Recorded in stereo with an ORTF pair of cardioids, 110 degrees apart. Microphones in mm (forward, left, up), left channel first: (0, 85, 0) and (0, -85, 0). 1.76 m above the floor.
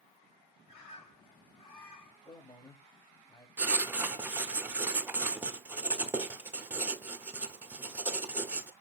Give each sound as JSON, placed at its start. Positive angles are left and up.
{"t": 0.7, "sound": "a bird", "azimuth_deg": 30, "distance_m": 3.5}
{"t": 2.2, "sound": "a man speaking", "azimuth_deg": 20, "distance_m": 3.0}
{"t": 3.6, "sound": "writing", "azimuth_deg": -10, "distance_m": 0.8}